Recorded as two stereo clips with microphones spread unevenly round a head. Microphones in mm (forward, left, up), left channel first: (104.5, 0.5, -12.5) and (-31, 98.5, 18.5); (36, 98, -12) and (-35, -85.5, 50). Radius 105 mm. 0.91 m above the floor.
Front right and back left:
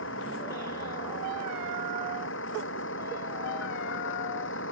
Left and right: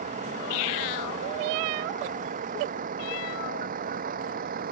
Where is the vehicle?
55° right; by 4.7 s 65° right.